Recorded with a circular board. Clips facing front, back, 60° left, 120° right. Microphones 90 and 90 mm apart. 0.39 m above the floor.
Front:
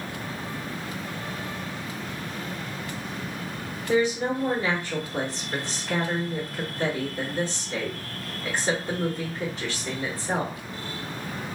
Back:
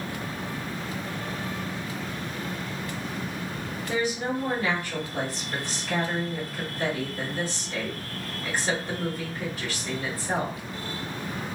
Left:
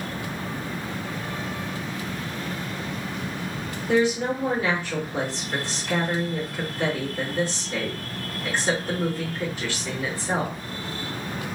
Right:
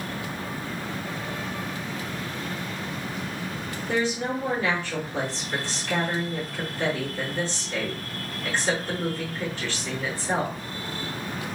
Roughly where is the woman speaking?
Ahead.